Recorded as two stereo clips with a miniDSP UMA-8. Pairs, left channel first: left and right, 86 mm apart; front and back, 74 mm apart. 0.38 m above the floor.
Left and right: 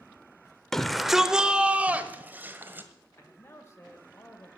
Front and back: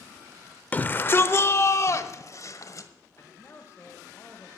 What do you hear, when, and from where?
0.7 s a shout: 15° left, 0.8 m; by 2.9 s 30° right, 1.6 m
3.2 s a man speaking: 40° left, 1.1 m